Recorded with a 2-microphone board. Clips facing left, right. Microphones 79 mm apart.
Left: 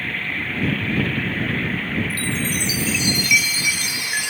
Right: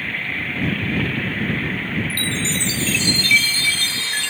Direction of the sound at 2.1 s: 15° left (ahead or behind).